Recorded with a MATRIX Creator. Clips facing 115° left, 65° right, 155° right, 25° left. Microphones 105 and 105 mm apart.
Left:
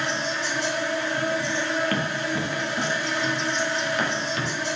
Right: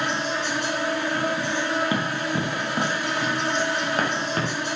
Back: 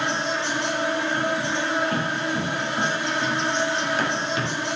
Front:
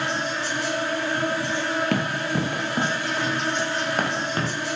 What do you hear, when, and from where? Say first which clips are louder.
0.0 s an insect: right 2 dB, back 2 dB; 95° right, 3.5 m
1.9 s running footsteps: right 1 dB, front 1 dB; 5° left, 3 m; by 4.5 s 25° right, 4 m